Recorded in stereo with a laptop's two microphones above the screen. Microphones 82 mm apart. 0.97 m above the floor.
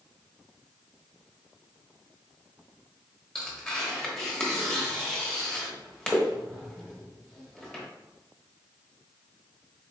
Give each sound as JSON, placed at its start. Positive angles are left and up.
{"t": 3.4, "sound": "tearing paper", "side_deg": 5, "distance_m": 0.9}